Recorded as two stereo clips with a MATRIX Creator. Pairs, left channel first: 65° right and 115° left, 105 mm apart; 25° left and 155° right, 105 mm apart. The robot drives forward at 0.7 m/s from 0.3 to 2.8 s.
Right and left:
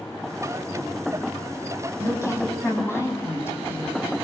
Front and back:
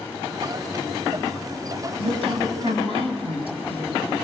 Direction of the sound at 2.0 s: 130° right.